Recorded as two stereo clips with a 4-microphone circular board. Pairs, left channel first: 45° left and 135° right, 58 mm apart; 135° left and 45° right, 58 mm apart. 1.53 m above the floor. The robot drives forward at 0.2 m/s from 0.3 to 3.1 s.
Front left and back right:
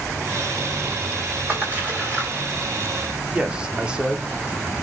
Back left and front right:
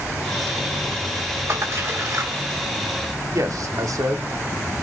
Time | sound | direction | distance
1.5 | a splash | 80° right | 2 m
3.3 | a man speaking | 65° right | 0.6 m